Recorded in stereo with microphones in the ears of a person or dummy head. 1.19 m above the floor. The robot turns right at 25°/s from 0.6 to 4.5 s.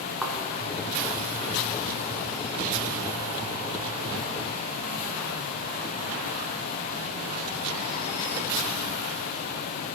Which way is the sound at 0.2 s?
5° right (ahead or behind).